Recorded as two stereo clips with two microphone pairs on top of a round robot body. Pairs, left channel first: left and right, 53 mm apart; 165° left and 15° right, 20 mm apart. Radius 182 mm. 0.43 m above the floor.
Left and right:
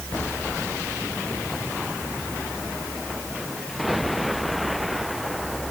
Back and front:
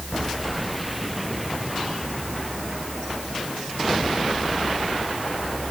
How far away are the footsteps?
No footsteps in this recording.